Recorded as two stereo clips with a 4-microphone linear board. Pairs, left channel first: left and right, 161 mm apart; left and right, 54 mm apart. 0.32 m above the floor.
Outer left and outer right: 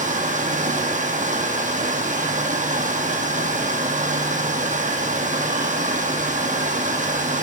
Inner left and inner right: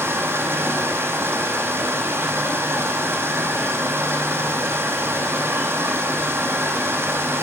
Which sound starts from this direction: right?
Running water, at 0.0 s.